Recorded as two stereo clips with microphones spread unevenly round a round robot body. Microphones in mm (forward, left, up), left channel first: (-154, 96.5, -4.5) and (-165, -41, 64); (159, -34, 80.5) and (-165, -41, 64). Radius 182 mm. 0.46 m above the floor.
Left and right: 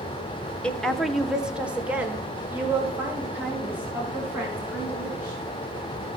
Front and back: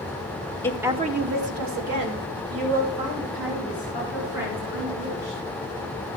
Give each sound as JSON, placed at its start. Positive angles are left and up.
{"t": 0.6, "sound": "a woman speaking", "azimuth_deg": 80, "distance_m": 1.0}